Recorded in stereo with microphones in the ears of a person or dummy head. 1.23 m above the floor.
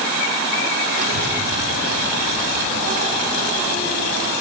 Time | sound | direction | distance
0.9 | a child speaking | 40° right (ahead or behind) | 1.0 m